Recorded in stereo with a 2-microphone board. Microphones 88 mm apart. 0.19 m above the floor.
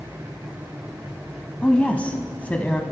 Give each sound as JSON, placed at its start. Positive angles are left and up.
{"t": 1.6, "sound": "a woman speaking", "side_deg": 15, "distance_m": 1.0}